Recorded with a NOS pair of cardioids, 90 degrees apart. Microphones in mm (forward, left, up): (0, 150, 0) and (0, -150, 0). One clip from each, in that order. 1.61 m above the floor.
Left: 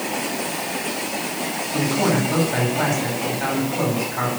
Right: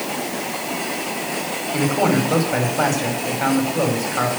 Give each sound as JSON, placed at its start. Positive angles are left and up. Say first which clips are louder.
{"t": 1.7, "sound": "a man speaking", "louder": "right 2 dB", "azimuth_deg": -35, "distance_m": 5.0}